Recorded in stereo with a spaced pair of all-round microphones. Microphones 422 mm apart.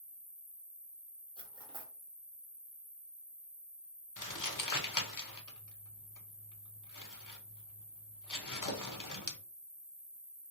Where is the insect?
60° left (ahead or behind), 1.5 m.